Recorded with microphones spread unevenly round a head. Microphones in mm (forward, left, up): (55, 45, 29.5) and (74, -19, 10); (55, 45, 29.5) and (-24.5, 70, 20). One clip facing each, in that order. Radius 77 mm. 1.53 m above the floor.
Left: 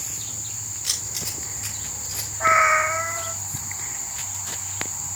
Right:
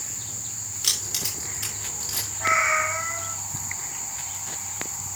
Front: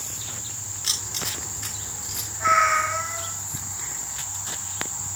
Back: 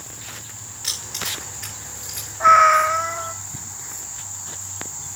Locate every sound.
0.8 s keys jangling: 100° right, 3 m
2.4 s a cat meowing: 140° left, 1.0 m